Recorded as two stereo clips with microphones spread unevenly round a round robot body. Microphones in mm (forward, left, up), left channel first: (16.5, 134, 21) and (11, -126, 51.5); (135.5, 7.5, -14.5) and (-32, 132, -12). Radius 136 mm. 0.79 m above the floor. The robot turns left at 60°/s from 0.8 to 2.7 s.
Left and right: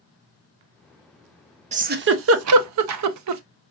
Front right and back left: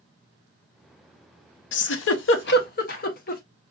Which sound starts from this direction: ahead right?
A giggle, at 1.7 s.